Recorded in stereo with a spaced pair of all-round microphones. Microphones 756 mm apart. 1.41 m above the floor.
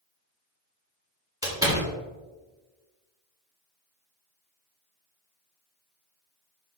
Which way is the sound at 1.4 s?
5° right (ahead or behind).